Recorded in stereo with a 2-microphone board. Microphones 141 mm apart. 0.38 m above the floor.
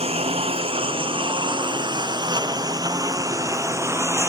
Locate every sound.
0.0 s a lawn mower: 45° right (ahead or behind); by 4.3 s 20° right (ahead or behind)